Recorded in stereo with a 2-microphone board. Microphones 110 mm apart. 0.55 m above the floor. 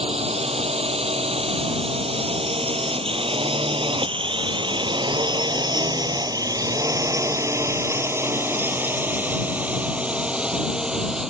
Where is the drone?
80° right; by 11.3 s 5° right (ahead or behind).